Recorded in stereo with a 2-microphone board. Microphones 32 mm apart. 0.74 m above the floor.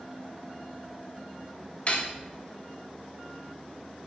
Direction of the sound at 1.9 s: 35° left (ahead or behind).